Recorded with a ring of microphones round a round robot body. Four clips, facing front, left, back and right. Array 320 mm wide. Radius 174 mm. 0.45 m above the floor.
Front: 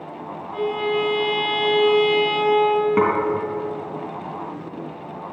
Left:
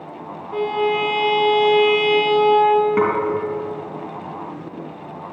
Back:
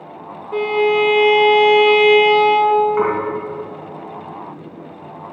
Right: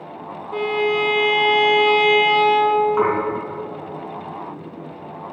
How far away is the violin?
About 2 m.